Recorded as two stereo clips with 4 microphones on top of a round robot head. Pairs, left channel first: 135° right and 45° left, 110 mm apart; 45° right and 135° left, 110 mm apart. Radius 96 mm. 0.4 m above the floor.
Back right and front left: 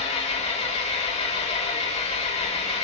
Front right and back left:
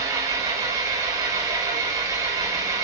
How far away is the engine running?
About 0.8 m.